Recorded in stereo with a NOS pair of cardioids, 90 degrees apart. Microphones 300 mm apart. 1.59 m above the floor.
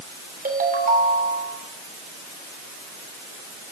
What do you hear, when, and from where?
0.5 s a ringtone: 30° right, 3 m